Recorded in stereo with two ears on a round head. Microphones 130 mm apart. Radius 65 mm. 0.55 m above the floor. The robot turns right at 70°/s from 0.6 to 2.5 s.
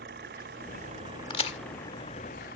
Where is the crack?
35° left (ahead or behind); by 1.6 s 50° left (ahead or behind).